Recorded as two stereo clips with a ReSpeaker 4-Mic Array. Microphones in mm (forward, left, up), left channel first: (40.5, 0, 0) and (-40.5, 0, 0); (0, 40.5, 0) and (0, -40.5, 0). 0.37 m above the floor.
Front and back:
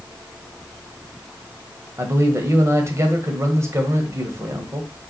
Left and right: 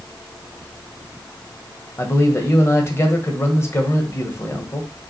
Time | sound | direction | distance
2.0 | a man speaking | 135° left | 1.6 m